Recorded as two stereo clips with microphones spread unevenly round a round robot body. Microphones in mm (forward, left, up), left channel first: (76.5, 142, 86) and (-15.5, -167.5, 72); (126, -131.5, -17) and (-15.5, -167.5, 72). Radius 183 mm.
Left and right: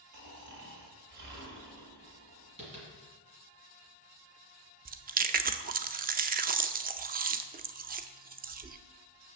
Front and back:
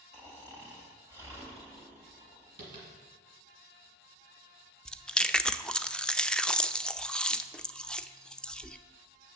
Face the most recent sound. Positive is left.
turn(degrees=-45)